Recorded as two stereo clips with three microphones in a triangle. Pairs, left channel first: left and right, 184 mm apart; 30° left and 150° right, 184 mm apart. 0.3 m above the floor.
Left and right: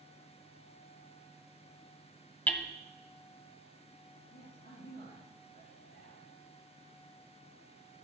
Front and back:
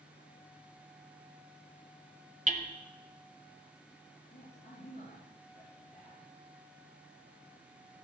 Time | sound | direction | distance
2.5 | hammering | 170° left | 1.3 m
4.3 | a man speaking | 65° left | 5.5 m